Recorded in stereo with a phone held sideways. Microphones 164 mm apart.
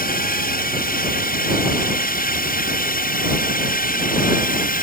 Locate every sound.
0.0 s a drone: 65° left (ahead or behind); by 4.8 s 60° left (ahead or behind)